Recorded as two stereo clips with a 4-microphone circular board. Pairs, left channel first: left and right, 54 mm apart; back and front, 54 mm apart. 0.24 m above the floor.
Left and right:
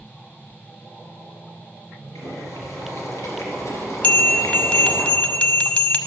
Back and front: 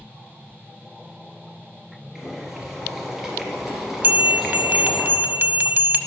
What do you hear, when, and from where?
2.1 s boiling: 85° left, 2.5 m
4.0 s a bell: 35° left, 0.6 m